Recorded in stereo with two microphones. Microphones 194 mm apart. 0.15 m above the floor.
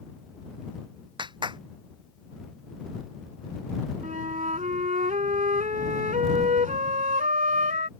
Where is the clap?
20° right (ahead or behind).